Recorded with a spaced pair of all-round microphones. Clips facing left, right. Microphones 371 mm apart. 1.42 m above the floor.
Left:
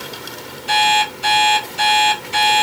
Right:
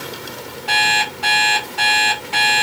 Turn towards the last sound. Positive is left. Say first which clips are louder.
# left 5 dB
turn(degrees=-70)  # may be behind; listen again after turning